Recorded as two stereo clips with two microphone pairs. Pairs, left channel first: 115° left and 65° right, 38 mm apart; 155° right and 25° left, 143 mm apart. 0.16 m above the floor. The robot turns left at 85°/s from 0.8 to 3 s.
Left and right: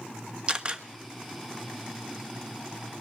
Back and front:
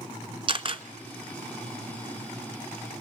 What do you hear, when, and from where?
0.5 s a camera shutter: 10° right, 1.3 m; by 0.8 s 15° right, 1.3 m